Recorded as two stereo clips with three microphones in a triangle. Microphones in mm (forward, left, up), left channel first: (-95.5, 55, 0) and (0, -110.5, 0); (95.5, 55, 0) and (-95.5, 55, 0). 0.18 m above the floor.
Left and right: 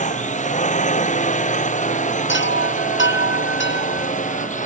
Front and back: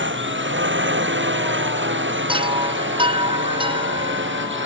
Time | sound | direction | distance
0.0 | a drone | 170° left | ?
2.3 | a chime | 115° left | ?